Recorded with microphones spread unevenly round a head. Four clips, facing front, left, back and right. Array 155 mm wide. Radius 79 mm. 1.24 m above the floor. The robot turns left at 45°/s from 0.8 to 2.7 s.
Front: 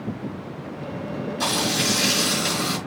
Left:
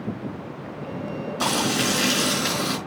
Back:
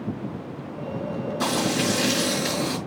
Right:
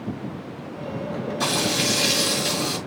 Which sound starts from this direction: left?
Frying, at 1.4 s.